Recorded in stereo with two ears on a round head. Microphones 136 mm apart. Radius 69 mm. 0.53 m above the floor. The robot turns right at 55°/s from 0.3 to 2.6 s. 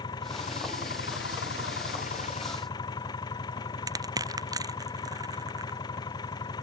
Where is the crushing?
25° right (ahead or behind).